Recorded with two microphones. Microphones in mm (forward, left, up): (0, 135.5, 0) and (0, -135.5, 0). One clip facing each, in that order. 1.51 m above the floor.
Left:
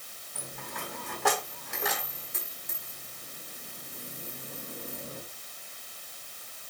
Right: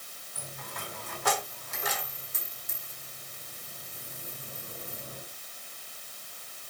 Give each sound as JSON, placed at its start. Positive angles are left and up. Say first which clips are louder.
{"t": 0.3, "sound": "a dropped coin", "louder": "left 2 dB", "side_deg": 70, "distance_m": 4.5}